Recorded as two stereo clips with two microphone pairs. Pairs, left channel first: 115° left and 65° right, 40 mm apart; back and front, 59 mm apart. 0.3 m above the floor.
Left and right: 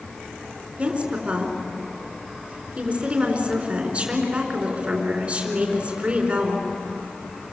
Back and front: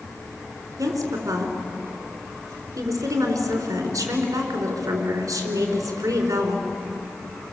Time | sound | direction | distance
0.8 | a woman speaking | straight ahead | 4 m